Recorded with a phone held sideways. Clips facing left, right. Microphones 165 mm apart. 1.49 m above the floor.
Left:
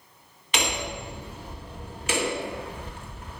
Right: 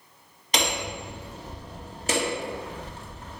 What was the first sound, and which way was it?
Hammering, 40° right (ahead or behind).